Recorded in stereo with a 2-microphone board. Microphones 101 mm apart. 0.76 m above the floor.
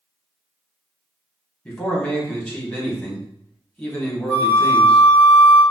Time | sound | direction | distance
1.6 | a man speaking | 10° left (ahead or behind) | 1.4 m
4.3 | a flute | 10° right (ahead or behind) | 1.5 m